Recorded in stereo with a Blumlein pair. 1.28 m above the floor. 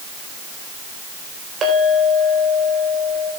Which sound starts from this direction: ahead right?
A clink, at 1.6 s.